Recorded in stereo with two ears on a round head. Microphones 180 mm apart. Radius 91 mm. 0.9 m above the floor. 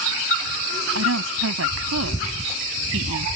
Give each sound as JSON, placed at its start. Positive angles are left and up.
{"t": 0.9, "sound": "a woman speaking", "side_deg": -85}